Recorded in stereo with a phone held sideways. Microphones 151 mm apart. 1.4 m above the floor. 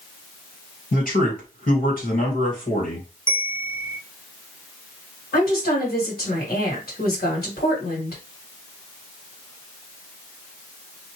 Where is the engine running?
No engine running in this recording.